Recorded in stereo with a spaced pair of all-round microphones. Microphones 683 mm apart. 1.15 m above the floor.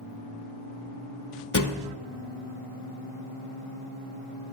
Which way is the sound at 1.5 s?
30° left (ahead or behind).